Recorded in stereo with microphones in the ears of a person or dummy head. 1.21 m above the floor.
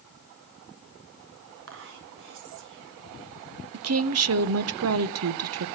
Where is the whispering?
70° right (ahead or behind), 1.0 m.